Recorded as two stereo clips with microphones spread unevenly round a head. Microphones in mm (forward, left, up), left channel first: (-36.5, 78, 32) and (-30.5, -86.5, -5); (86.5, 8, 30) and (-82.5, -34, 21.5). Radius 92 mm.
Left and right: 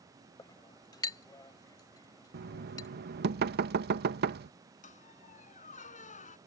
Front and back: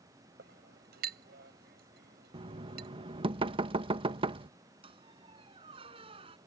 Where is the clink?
155° left.